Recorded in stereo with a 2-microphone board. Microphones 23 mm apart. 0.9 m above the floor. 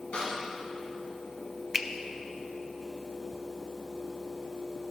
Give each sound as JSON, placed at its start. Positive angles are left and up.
{"t": 0.1, "sound": "a snare drum", "side_deg": 65, "distance_m": 4.0}
{"t": 1.7, "sound": "a finger snap", "side_deg": -15, "distance_m": 0.5}